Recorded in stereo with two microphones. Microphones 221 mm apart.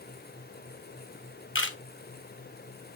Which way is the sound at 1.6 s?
60° left (ahead or behind).